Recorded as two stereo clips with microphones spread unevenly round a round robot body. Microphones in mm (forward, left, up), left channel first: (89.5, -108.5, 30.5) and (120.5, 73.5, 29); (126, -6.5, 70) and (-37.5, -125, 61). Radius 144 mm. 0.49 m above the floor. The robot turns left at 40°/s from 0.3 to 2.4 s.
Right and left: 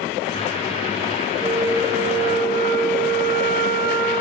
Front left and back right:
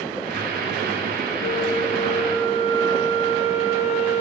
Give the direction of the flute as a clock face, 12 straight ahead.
11 o'clock.